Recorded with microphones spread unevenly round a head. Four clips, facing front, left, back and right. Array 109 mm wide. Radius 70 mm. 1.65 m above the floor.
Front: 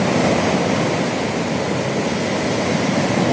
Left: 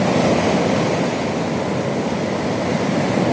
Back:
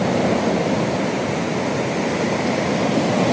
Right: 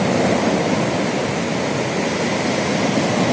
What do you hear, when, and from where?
Only background noise.